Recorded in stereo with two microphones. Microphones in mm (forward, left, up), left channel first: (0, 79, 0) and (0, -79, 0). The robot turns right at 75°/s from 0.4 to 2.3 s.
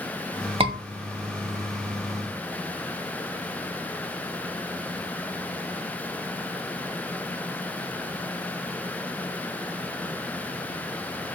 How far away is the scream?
About 2 m.